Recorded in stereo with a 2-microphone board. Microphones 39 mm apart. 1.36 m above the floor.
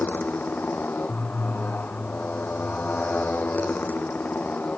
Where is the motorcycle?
45° left (ahead or behind); by 4.8 s 40° left (ahead or behind).